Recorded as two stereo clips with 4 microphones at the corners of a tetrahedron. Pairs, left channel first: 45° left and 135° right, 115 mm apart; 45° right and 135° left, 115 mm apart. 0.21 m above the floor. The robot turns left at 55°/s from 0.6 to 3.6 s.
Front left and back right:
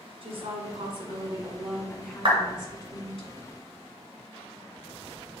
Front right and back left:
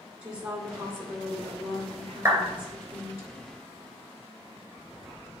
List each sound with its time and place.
0.2 s a woman speaking: 145° right, 2 m; by 3.2 s 70° left, 2 m
2.2 s a clap: 165° right, 2.5 m; by 2.4 s 175° right, 2.5 m